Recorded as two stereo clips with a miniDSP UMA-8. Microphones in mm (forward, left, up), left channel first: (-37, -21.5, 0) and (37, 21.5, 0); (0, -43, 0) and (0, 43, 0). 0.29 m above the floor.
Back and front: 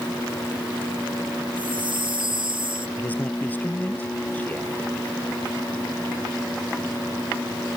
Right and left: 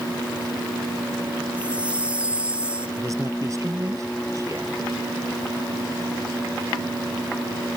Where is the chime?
15° left.